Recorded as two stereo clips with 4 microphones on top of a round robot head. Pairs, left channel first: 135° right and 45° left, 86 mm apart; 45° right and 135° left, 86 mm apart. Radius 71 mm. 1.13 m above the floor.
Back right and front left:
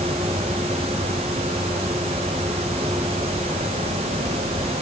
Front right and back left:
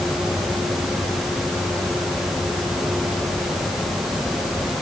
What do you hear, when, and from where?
Only background noise.